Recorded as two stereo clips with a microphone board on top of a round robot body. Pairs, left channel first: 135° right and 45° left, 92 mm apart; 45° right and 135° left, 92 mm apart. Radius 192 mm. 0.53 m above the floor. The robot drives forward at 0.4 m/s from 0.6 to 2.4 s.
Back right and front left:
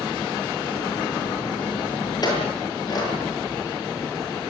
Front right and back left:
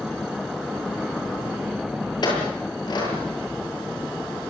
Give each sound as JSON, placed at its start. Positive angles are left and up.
{"t": 2.2, "sound": "a clink", "azimuth_deg": -90, "distance_m": 8.5}